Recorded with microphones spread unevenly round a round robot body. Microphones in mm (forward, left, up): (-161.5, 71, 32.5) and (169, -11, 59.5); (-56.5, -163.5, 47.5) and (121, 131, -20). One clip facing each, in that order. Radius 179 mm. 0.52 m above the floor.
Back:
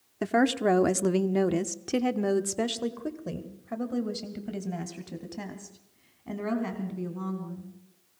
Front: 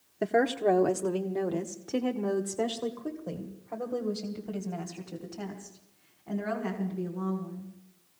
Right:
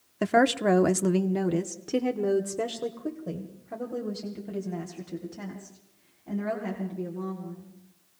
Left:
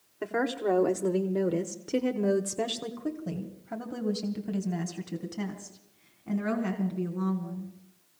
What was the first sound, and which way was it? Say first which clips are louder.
A woman speaking: back 1 dB, right 5 dB; 135° right.